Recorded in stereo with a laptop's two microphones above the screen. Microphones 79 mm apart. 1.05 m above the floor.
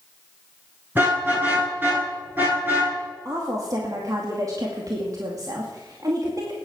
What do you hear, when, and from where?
0.9 s a car horn: 25° right (ahead or behind), 9 m
3.2 s a woman speaking: 45° right (ahead or behind), 2 m